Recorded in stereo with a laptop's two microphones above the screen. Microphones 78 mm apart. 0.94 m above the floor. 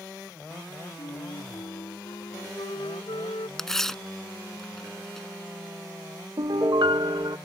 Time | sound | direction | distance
1.0 | a flute | 85° left | ?
3.6 | tearing paper | 5° left (ahead or behind) | ?
6.4 | a piano | 60° right (ahead or behind) | ?